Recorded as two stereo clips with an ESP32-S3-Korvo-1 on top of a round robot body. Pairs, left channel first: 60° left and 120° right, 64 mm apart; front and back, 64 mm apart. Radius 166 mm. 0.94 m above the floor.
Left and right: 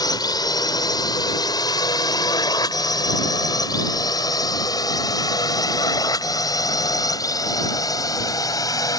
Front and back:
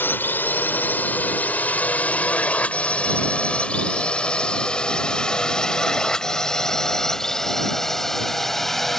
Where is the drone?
60° left; by 9.0 s 85° left.